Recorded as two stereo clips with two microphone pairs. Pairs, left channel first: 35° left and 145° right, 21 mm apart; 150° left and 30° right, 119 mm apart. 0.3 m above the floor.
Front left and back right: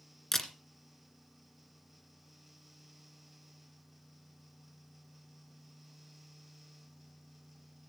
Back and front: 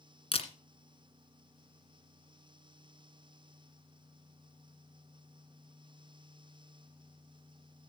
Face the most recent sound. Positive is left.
turn(degrees=115)